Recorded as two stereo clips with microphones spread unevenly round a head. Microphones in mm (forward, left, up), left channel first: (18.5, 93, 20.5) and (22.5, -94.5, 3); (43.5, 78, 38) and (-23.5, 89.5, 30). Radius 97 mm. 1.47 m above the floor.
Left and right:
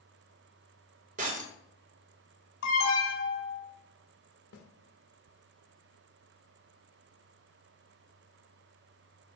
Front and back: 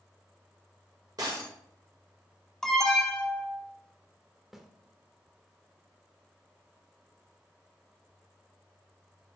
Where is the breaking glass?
135° right, 1.6 m.